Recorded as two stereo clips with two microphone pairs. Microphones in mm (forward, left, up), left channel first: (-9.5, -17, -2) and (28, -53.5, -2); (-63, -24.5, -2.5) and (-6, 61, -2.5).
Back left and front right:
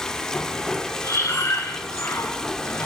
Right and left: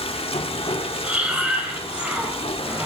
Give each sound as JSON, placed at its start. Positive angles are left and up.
{"t": 0.0, "sound": "running water", "azimuth_deg": -145, "distance_m": 1.5}
{"t": 1.0, "sound": "breathing", "azimuth_deg": 135, "distance_m": 4.0}